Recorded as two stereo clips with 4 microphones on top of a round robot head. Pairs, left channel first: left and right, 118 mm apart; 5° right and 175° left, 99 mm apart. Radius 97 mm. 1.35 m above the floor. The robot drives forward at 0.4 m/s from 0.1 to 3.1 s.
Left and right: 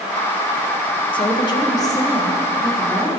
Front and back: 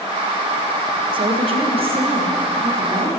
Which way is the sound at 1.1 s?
140° left.